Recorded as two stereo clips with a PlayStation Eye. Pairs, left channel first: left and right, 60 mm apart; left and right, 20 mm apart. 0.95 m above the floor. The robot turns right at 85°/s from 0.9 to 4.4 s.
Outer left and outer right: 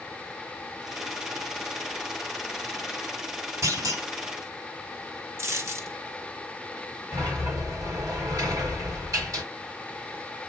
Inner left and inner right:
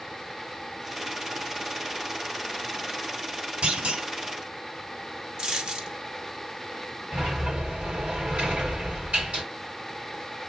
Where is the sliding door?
65° right (ahead or behind), 3.5 m.